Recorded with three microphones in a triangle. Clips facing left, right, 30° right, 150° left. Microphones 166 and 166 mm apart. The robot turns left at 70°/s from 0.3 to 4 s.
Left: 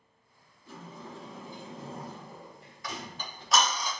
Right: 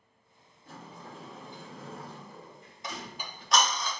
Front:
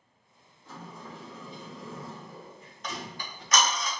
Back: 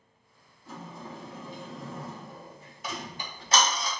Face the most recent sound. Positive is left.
turn(degrees=145)